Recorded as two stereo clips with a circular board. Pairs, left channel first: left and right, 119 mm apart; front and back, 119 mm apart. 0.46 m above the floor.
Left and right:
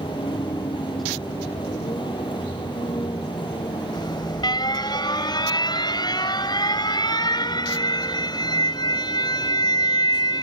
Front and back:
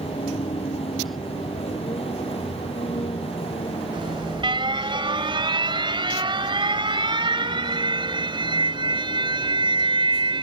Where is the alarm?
140° left.